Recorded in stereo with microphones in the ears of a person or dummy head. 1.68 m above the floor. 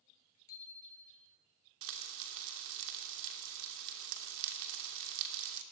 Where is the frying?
70° right (ahead or behind), 2.5 m.